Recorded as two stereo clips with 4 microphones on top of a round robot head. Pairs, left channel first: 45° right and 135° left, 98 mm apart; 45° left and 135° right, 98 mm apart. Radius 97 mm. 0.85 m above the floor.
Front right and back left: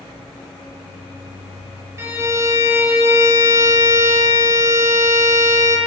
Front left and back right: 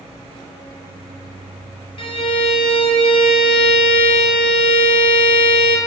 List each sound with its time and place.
2.0 s a violin: 75° left, 0.9 m